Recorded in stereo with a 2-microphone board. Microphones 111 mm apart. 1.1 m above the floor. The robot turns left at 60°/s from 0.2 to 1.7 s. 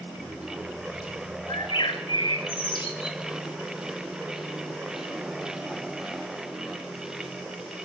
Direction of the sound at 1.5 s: 55° left (ahead or behind).